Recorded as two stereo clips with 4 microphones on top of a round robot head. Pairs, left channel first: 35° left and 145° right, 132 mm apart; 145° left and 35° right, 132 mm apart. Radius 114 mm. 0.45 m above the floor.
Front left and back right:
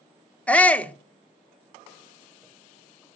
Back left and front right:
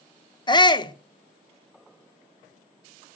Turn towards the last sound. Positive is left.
turn(degrees=110)